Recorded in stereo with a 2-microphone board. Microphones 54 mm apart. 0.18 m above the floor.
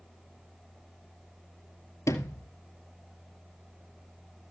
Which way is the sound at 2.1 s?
70° left (ahead or behind).